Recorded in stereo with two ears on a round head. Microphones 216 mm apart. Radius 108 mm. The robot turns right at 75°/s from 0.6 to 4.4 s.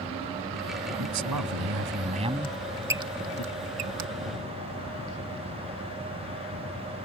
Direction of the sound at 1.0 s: 115° right.